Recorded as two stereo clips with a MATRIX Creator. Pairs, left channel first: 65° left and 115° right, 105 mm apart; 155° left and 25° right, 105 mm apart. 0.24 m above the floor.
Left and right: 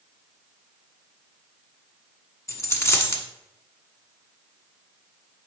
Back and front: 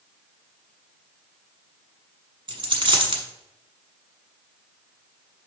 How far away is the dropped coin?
About 1.0 m.